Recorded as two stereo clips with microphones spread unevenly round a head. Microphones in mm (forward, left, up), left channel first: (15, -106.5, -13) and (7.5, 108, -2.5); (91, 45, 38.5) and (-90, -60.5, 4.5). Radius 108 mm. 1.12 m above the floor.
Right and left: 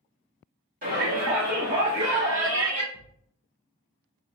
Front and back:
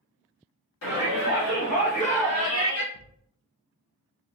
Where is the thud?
5° right, 2 m.